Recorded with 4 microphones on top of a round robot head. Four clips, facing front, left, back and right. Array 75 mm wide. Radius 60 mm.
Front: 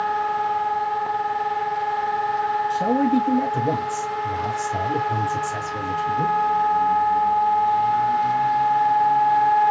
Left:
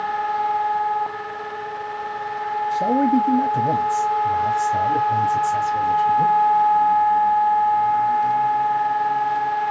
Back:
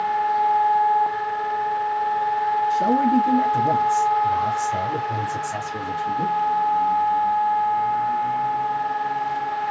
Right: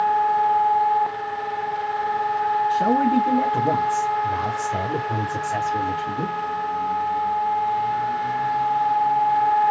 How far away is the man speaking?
About 4 m.